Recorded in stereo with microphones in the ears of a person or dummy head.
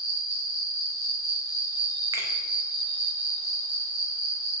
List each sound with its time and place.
0.0 s an insect: 5° right (ahead or behind), 1.2 m
2.1 s a finger snap: 15° right (ahead or behind), 0.7 m